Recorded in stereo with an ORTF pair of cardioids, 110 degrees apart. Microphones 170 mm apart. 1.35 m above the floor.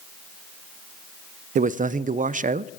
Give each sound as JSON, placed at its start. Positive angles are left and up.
{"t": 1.6, "sound": "a man speaking", "azimuth_deg": -50, "distance_m": 0.5}